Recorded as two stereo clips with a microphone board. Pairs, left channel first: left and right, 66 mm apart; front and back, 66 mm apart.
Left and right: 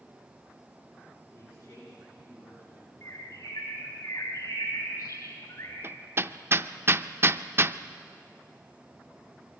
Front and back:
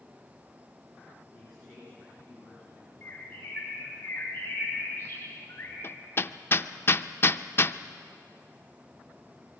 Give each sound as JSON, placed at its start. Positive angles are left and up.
{"t": 1.3, "sound": "a man speaking", "azimuth_deg": 105, "distance_m": 8.5}
{"t": 3.0, "sound": "a bird", "azimuth_deg": 60, "distance_m": 6.5}
{"t": 5.8, "sound": "hammering", "azimuth_deg": -45, "distance_m": 0.5}